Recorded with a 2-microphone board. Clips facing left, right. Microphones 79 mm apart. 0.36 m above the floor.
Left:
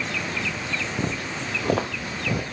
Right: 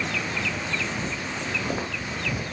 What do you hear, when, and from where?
1.0 s footsteps: 80° left, 1.8 m; by 2.4 s 70° left (ahead or behind), 3 m